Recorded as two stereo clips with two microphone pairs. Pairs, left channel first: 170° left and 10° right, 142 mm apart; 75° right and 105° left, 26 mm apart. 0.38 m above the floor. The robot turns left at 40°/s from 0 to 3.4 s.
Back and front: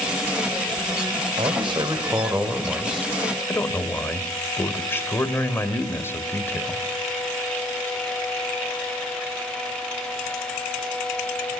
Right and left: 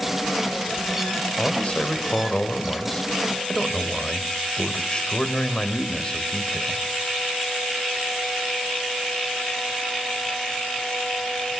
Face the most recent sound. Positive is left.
turn(degrees=-120)